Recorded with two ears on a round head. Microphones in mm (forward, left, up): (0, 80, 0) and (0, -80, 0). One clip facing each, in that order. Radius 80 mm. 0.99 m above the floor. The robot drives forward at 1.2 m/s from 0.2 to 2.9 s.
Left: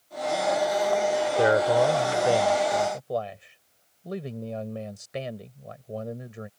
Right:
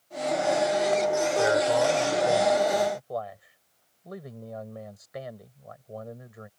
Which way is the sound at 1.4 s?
45° left (ahead or behind).